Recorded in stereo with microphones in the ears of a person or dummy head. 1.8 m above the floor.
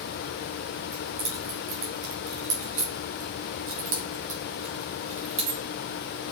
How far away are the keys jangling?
About 1.9 m.